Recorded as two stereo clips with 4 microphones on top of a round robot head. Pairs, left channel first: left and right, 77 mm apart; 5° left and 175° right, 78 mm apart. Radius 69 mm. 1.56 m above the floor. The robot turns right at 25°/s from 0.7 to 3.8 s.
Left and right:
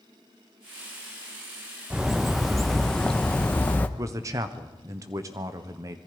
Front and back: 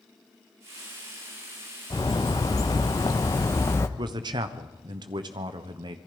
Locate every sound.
1.9 s a bird: 10° right, 0.7 m; by 3.9 s 35° left, 0.7 m
4.0 s a man speaking: 140° right, 1.2 m